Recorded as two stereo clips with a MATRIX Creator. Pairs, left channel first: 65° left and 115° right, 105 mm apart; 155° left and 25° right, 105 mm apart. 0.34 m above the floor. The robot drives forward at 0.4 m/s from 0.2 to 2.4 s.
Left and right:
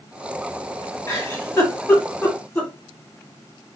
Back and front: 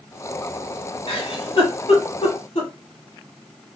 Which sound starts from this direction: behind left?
A giggle, at 1.1 s.